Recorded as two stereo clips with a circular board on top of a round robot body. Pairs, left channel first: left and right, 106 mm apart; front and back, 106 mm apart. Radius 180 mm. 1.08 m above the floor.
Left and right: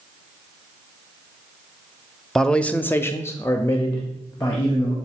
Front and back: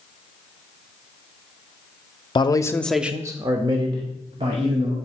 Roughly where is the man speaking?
Ahead.